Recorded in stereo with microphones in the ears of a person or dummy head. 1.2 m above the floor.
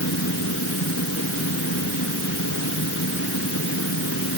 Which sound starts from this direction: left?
A fan, at 0.0 s.